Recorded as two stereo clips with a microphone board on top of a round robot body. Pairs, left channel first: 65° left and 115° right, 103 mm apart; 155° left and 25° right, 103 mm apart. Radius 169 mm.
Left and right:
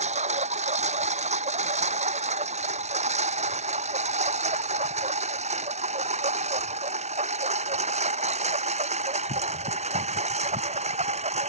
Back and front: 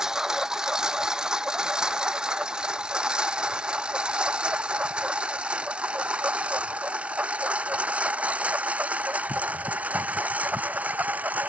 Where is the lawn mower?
110° right; by 11.5 s 100° right.